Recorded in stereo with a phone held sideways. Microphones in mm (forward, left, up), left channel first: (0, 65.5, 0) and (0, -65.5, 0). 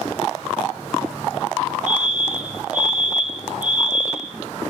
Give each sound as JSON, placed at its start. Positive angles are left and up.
{"t": 1.9, "sound": "a fire alarm", "side_deg": -75, "distance_m": 5.5}